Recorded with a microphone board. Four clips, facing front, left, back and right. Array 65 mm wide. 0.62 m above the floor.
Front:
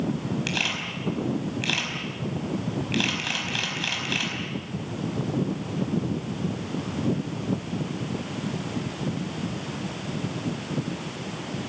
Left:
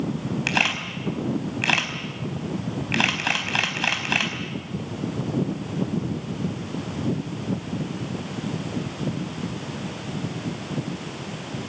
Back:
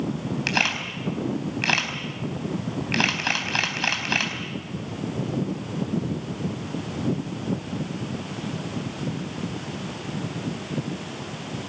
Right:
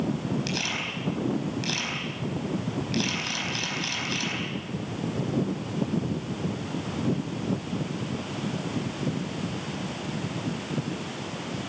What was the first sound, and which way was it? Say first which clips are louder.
A camera shutter: left 6 dB, back 4 dB; 130° left.